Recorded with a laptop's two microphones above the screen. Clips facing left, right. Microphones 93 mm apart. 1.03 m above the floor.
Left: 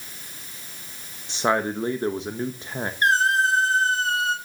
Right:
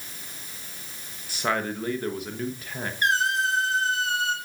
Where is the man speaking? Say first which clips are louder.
Left 4 dB; 25° left (ahead or behind), 0.8 m.